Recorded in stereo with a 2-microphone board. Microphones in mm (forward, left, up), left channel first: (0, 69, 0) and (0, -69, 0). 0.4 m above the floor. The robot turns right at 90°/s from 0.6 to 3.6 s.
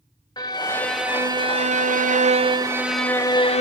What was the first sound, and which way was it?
A violin, 150° left.